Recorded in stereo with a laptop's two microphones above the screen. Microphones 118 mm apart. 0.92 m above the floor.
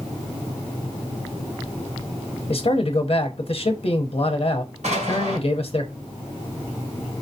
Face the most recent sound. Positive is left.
turn(degrees=-80)